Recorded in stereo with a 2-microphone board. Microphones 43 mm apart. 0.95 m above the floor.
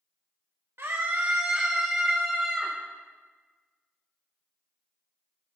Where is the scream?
65° right (ahead or behind), 1.3 m; by 2.8 s 5° left (ahead or behind), 2 m.